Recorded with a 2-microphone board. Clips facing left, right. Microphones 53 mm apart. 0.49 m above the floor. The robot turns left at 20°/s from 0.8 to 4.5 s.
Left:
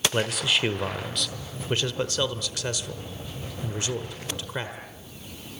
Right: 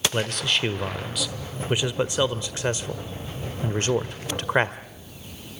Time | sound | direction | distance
0.1 | a man speaking | 5° left | 1.3 m